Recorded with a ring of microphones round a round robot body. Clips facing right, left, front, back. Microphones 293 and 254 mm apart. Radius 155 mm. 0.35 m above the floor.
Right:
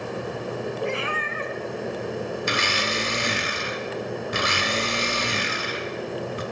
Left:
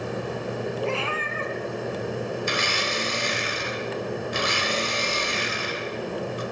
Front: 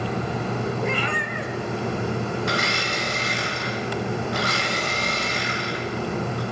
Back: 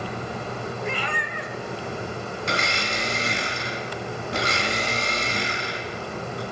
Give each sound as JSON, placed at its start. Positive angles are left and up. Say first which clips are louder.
{"t": 0.8, "sound": "a cat meowing", "louder": "even, front 4 dB", "azimuth_deg": -15, "distance_m": 2.5}
{"t": 2.5, "sound": "a blender", "louder": "right 1 dB, front 2 dB", "azimuth_deg": -110, "distance_m": 3.5}